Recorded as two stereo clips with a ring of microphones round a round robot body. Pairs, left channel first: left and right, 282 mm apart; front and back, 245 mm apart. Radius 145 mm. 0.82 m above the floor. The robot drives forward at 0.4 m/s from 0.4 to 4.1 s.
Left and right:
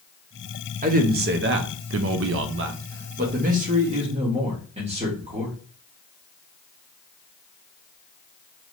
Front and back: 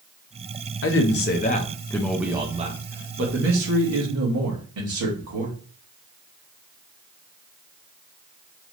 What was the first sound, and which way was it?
A man speaking, 30° right.